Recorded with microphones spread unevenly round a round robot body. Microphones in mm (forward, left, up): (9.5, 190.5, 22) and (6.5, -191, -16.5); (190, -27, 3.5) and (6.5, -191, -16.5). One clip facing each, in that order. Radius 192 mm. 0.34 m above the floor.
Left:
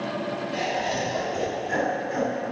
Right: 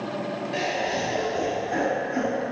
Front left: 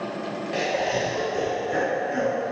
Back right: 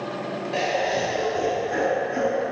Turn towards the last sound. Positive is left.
turn(degrees=80)